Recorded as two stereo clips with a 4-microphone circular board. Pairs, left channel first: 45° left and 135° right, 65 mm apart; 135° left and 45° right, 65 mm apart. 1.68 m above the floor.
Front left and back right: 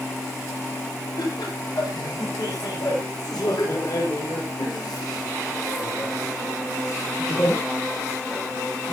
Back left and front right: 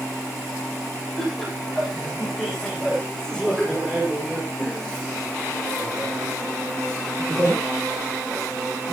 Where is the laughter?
45° left, 9 m; by 8.9 s 25° right, 3.5 m.